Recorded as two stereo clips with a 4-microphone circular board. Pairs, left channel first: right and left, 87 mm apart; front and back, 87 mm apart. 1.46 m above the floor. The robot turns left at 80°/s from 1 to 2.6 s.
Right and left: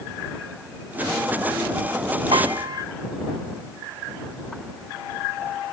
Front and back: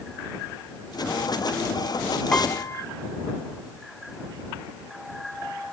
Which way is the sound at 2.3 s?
80° left.